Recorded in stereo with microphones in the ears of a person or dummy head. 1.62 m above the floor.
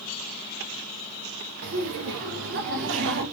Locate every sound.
1.6 s laughter: 75° right (ahead or behind), 1.9 m; by 3.2 s 70° right (ahead or behind), 1.9 m